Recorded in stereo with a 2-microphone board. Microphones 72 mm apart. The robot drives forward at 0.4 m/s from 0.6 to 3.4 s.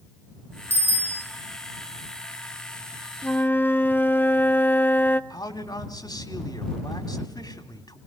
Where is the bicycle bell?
25° left (ahead or behind), 3 m.